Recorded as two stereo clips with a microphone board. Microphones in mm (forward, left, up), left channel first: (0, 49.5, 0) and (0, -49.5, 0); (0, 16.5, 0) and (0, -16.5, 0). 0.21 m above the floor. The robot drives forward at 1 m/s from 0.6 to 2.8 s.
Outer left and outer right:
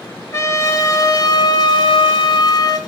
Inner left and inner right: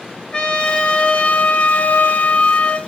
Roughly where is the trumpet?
Left.